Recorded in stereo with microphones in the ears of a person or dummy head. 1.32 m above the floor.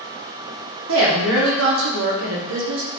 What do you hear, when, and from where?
0.9 s a woman speaking: 80° right, 1.2 m